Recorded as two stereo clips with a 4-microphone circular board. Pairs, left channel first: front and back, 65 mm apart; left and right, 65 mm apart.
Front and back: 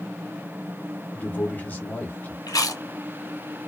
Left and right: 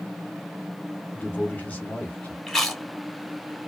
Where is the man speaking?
45° left, 1.0 m.